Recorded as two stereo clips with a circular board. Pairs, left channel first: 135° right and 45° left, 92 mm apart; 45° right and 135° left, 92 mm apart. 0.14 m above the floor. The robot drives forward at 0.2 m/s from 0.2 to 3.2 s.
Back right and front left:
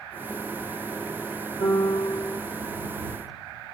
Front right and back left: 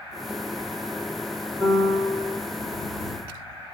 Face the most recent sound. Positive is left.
turn(degrees=-125)